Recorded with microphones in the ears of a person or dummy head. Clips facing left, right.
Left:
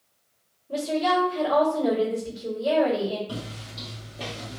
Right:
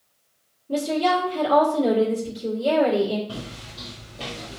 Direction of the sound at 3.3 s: 15° left (ahead or behind).